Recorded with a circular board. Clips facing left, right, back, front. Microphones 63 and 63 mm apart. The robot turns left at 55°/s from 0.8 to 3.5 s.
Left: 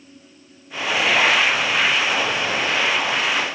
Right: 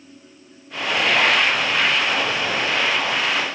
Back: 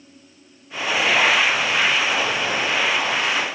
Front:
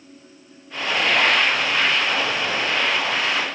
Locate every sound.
Only background noise.